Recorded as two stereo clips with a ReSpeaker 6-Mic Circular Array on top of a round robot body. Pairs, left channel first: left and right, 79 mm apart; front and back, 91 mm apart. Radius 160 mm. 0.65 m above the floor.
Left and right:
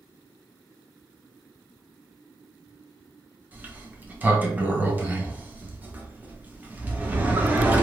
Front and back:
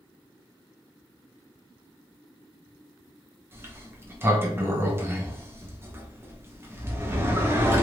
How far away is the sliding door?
About 1.0 m.